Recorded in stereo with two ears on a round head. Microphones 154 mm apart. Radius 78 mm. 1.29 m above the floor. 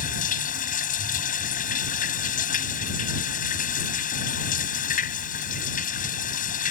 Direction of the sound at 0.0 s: 55° left (ahead or behind).